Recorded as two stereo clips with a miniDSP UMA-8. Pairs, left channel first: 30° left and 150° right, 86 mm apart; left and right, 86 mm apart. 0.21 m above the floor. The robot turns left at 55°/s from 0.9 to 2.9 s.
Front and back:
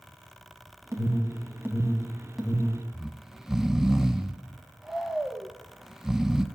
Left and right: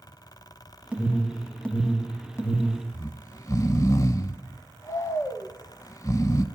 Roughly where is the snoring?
Behind left.